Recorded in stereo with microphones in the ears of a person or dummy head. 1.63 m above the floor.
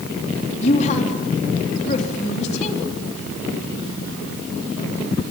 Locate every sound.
0.6 s a woman speaking: 35° left (ahead or behind), 3.5 m